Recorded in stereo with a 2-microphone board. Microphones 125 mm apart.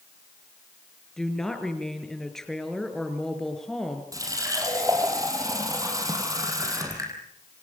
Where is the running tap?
25° right (ahead or behind), 5 m.